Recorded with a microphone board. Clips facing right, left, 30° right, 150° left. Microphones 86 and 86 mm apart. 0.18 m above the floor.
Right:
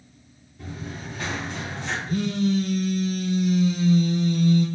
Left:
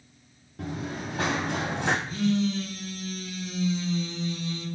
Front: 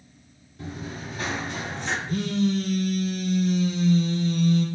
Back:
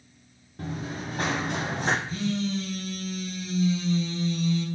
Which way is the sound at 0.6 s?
105° left.